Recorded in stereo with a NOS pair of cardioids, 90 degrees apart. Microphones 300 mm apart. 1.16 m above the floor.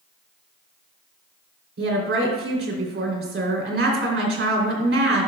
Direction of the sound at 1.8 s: 45° right.